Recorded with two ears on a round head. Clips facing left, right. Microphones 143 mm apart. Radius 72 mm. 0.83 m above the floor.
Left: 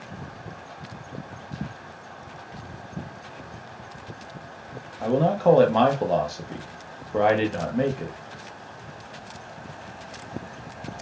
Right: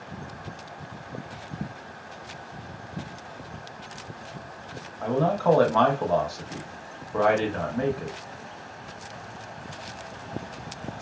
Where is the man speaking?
25° left (ahead or behind), 0.7 m.